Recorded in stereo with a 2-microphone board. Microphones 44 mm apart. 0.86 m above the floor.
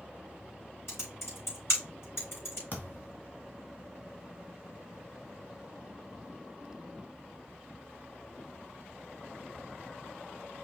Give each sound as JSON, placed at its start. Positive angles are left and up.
{"t": 0.9, "sound": "typing on a keyboard", "side_deg": 65, "distance_m": 4.0}
{"t": 2.7, "sound": "a thud", "side_deg": 40, "distance_m": 1.5}